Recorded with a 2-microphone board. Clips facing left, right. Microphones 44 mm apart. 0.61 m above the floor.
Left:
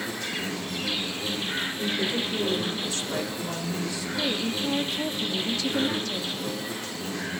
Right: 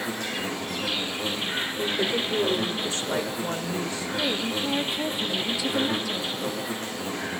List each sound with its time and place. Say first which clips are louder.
0.0 s an insect: right 1 dB; 70° right (ahead or behind), 5.5 m
1.8 s a woman speaking: right 3 dB; 40° right (ahead or behind), 2.0 m
4.2 s a woman speaking: right 1 dB; 10° right (ahead or behind), 0.5 m